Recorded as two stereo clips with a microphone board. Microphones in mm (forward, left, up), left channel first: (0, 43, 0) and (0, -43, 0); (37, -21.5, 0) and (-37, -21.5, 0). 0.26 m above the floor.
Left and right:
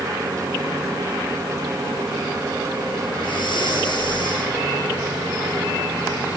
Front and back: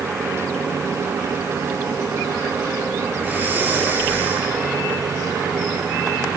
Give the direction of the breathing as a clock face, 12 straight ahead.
8 o'clock.